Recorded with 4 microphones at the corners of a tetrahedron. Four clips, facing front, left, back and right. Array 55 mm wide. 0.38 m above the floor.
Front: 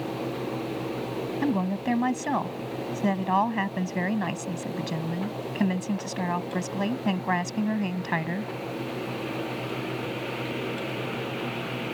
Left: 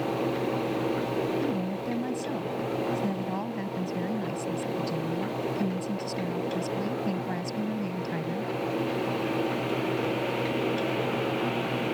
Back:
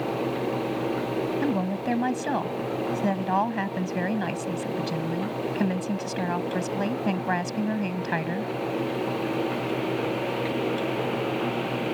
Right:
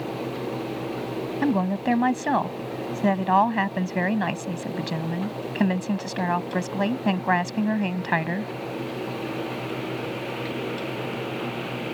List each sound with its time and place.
1.4 s a woman speaking: 85° right